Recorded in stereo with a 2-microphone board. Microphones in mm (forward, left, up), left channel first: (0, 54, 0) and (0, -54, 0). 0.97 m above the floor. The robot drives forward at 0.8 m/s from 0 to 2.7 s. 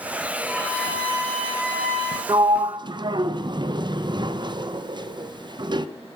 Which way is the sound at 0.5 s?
10° left (ahead or behind).